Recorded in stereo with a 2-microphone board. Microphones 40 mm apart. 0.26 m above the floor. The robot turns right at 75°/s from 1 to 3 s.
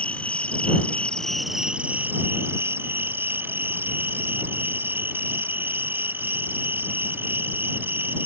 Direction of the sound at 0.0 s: 150° left.